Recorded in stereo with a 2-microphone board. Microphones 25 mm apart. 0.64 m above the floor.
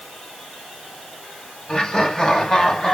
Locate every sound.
1.7 s laughter: 35° left (ahead or behind), 5 m; by 3.0 s 30° left (ahead or behind), 5.5 m